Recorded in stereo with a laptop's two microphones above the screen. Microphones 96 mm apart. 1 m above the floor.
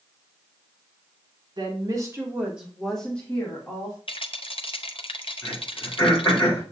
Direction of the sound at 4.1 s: 60° left (ahead or behind).